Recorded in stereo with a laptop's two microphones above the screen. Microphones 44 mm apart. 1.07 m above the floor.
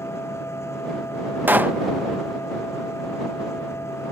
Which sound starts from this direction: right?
A pop, at 1.5 s.